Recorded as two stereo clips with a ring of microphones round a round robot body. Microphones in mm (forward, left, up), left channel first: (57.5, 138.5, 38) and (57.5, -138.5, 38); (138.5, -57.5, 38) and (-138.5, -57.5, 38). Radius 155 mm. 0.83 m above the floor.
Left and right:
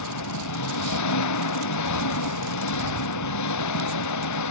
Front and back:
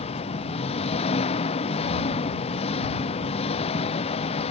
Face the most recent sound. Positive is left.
turn(degrees=70)